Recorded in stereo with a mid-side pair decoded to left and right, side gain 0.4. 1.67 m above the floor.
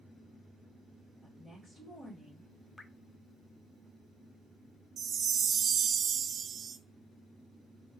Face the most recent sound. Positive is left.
turn(degrees=-55)